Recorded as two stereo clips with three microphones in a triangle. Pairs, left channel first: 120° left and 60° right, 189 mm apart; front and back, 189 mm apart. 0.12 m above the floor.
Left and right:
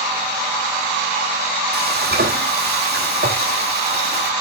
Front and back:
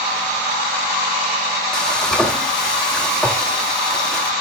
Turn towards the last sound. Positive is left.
turn(degrees=-85)